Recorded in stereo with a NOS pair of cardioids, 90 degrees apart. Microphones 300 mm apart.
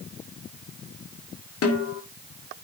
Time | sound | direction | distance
1.6 | a snare drum | 55° left | 1.8 m